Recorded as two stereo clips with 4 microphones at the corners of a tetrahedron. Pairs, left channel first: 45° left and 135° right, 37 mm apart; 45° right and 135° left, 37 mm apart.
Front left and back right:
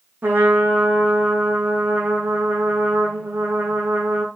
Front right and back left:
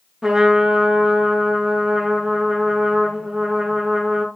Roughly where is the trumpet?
Behind right.